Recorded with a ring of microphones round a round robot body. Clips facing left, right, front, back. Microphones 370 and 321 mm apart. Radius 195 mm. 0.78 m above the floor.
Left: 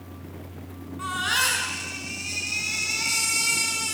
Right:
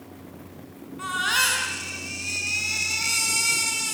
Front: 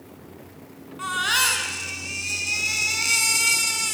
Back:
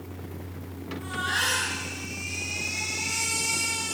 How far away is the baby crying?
About 5.5 m.